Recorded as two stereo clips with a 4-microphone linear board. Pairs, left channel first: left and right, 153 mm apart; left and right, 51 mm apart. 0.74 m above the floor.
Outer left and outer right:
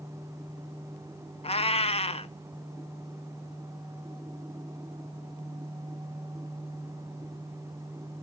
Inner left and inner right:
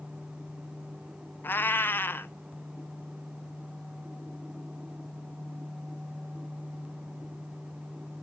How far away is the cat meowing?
About 0.8 m.